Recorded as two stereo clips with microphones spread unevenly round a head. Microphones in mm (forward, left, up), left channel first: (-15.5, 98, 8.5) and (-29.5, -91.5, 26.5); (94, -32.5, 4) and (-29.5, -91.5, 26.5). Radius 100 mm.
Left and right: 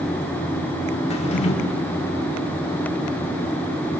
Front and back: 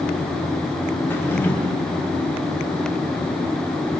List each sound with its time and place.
1.1 s a drawer: 105° left, 1.2 m